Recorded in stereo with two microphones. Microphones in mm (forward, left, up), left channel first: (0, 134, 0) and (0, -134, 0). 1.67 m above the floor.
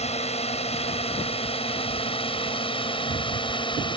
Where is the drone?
25° left (ahead or behind); by 4.0 s 20° left (ahead or behind).